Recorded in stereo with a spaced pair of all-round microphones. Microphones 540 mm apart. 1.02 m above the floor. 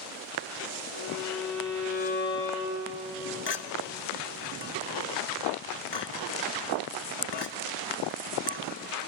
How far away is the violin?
About 5.5 m.